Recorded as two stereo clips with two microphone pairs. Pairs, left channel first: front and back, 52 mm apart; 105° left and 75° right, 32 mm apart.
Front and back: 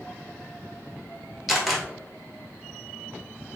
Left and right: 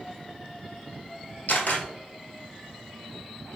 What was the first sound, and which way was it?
A camera shutter, 90° left.